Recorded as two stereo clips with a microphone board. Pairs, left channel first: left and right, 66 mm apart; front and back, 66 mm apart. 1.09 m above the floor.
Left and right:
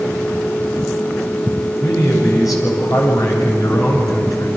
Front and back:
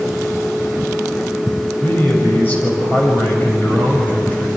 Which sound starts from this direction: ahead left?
A man speaking, at 1.8 s.